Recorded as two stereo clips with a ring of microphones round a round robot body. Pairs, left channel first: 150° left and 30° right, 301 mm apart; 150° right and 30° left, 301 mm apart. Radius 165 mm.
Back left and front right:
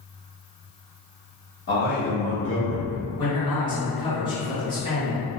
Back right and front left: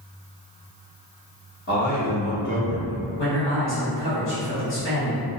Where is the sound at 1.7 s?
175° left, 1.4 m; by 3.0 s 140° right, 1.5 m.